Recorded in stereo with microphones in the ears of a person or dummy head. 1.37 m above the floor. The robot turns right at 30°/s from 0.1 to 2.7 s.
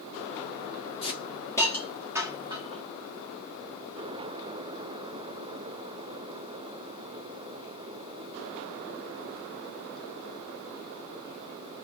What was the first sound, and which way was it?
A hiss, 25° left (ahead or behind).